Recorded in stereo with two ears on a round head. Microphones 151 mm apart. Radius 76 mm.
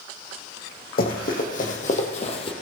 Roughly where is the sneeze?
I don't hear a sneeze.